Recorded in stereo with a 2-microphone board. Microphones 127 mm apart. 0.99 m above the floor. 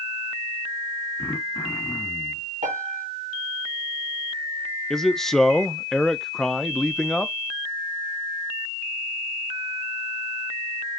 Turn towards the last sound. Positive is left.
turn(degrees=5)  # may be behind; listen again after turning